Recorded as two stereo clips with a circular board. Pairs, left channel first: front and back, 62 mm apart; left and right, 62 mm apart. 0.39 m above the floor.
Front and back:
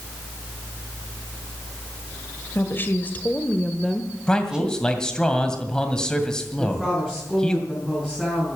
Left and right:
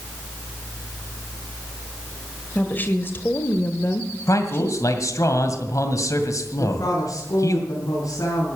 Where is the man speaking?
75° left, 2.0 m.